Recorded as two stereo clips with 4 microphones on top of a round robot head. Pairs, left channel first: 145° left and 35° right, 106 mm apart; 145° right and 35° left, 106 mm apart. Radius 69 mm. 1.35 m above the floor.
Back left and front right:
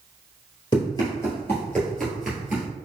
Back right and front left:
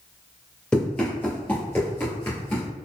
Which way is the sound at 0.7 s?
135° left.